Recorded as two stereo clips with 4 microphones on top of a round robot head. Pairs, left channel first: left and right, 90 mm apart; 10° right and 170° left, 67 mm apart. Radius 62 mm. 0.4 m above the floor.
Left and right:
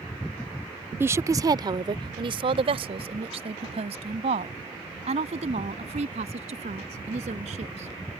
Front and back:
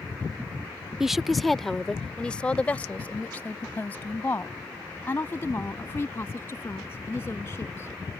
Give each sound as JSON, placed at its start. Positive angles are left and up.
{"t": 1.0, "sound": "a woman speaking", "azimuth_deg": -115}